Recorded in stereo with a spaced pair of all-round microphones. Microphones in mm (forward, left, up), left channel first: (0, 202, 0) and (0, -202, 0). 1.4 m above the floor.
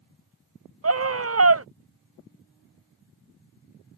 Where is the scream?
35° right (ahead or behind).